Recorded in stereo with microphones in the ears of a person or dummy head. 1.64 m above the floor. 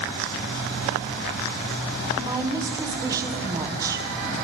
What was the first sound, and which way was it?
A woman speaking, 20° right (ahead or behind).